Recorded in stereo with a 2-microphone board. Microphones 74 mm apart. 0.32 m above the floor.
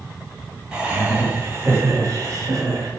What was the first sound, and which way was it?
Laughter, 15° right (ahead or behind).